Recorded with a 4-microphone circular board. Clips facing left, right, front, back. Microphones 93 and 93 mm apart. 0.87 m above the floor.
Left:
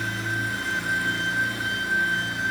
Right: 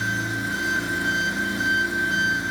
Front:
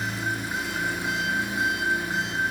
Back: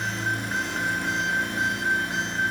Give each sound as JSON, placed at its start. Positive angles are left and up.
{"t": 0.0, "sound": "an engine running", "azimuth_deg": -80, "distance_m": 7.0}